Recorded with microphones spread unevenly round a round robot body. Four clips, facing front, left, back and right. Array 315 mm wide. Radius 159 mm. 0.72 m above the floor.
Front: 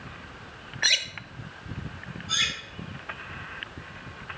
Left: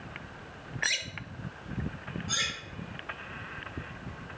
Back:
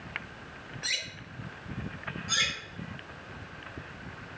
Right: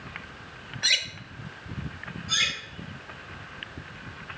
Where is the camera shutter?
No camera shutter in this recording.